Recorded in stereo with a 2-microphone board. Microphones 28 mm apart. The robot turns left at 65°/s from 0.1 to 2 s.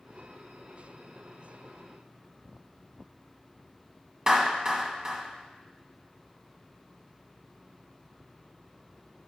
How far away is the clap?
About 1.4 m.